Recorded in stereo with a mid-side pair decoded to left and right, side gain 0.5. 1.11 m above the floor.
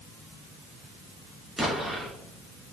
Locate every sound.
1.6 s an explosion: 10° right, 2 m